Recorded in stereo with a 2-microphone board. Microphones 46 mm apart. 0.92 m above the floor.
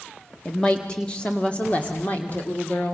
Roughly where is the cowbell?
No cowbell in this recording.